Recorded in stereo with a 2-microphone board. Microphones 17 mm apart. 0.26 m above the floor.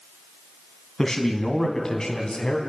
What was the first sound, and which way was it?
A man speaking, 20° left (ahead or behind).